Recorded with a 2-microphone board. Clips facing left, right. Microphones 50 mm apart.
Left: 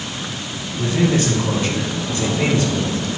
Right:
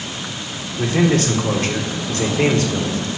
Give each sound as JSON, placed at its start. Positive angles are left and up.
{"t": 0.8, "sound": "a man speaking", "side_deg": -80, "distance_m": 1.9}